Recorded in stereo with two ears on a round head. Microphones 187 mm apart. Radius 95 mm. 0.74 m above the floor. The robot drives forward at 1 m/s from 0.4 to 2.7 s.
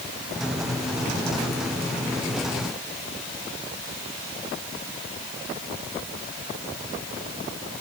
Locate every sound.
Only background noise.